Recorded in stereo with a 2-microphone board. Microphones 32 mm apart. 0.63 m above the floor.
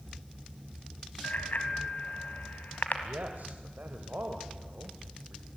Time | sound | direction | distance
1.2 | a bicycle bell | 70° left (ahead or behind) | 3.5 m
3.0 | a man speaking | 70° right (ahead or behind) | 2.5 m